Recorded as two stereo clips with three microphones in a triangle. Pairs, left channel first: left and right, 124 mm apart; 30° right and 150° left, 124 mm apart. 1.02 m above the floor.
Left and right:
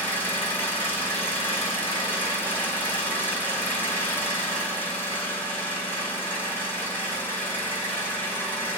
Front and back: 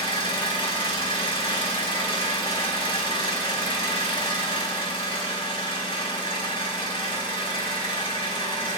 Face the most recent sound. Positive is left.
turn(degrees=15)